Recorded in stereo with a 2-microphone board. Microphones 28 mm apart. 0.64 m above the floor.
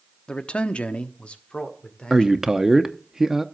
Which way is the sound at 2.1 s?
15° right (ahead or behind).